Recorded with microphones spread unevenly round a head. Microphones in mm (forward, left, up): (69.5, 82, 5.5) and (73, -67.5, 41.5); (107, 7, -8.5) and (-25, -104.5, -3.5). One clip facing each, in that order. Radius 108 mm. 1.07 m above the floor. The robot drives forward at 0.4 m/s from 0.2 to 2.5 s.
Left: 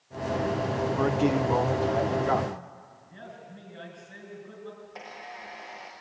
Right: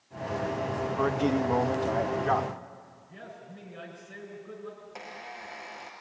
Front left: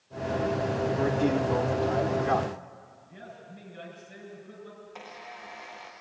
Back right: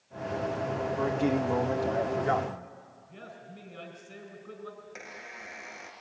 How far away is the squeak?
About 4.5 m.